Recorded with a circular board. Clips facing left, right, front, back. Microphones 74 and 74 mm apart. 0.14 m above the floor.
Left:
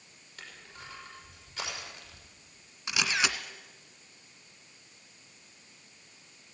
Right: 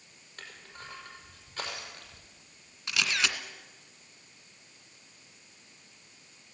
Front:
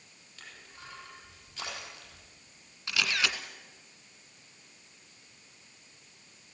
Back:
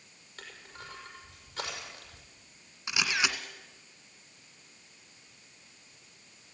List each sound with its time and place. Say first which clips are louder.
0.4 s crushing: right 1 dB, back 3 dB; 135° right, 5.5 m
2.9 s a camera shutter: left 1 dB, back 1 dB; 140° left, 1.6 m